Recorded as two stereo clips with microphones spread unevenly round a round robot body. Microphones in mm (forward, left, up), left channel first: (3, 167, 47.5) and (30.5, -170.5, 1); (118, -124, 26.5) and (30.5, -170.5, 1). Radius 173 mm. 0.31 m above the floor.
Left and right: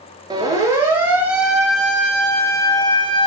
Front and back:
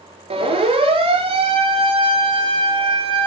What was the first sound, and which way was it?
A siren, 160° right.